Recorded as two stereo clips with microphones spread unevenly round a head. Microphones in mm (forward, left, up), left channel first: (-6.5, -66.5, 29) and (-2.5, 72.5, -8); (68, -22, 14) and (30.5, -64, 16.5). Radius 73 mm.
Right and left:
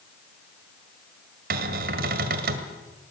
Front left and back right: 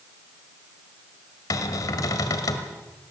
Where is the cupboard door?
60° left, 1.8 m.